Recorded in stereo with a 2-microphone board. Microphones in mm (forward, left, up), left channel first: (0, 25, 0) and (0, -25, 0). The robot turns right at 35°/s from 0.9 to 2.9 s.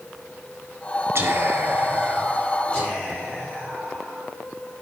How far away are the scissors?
I don't hear scissors.